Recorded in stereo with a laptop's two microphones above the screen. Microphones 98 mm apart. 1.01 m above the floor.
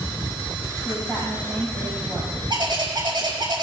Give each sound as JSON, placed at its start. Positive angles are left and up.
{"t": 0.8, "sound": "a woman speaking", "side_deg": -25, "distance_m": 6.5}
{"t": 2.5, "sound": "a bird", "side_deg": -55, "distance_m": 5.5}